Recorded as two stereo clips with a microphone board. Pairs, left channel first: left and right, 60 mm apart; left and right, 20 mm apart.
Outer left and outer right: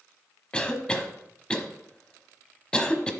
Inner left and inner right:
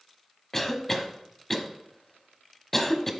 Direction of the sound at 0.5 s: 15° left (ahead or behind).